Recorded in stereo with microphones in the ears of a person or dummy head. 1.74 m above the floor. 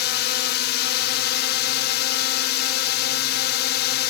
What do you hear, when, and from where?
0.0 s a drone: 55° left (ahead or behind)